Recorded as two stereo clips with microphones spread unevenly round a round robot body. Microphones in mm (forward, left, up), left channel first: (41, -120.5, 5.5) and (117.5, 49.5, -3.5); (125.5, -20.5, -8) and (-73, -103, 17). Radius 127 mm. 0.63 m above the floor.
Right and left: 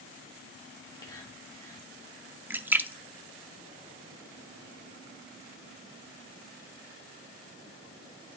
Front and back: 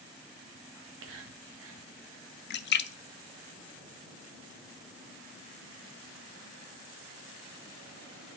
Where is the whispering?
170° left, 1.6 m.